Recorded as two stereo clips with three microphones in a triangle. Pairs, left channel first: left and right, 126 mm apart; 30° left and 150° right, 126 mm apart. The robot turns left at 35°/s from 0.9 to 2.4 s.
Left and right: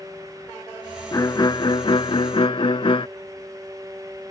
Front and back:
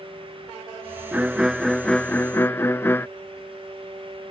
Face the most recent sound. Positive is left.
turn(degrees=95)